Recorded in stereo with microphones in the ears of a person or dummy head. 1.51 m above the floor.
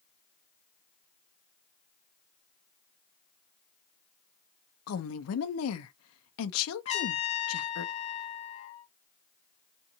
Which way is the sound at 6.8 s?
35° left (ahead or behind).